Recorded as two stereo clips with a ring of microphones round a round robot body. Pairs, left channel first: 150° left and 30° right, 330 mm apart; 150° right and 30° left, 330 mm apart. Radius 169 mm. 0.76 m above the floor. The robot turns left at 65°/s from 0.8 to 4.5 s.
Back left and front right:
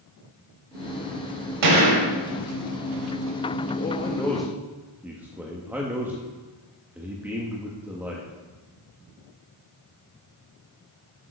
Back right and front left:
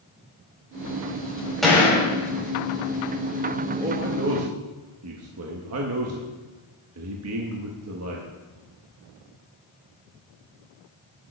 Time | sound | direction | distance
1.6 | a gunshot | 60° right | 4 m
3.8 | a man speaking | 100° left | 1.3 m